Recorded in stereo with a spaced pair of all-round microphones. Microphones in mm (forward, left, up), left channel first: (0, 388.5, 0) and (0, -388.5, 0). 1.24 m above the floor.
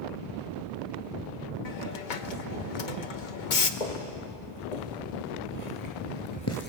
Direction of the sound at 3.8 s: 65° left (ahead or behind).